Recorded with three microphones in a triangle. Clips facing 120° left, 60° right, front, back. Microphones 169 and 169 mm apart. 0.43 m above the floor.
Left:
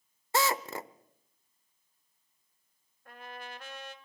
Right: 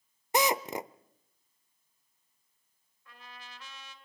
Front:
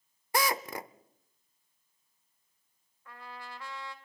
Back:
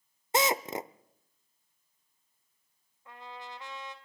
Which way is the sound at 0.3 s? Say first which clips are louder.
Right 2 dB, back 3 dB; 125° right.